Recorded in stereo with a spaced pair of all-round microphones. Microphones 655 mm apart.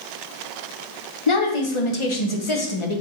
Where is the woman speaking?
50° left (ahead or behind), 0.9 m.